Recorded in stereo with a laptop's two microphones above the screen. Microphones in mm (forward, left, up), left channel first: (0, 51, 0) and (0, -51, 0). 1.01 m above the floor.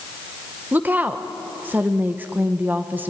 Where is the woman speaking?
15° right (ahead or behind), 0.8 m.